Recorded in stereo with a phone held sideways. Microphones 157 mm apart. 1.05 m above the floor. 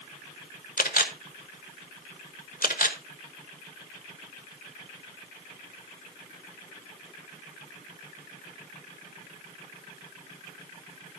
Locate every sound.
0.8 s a camera shutter: 65° left (ahead or behind), 1.2 m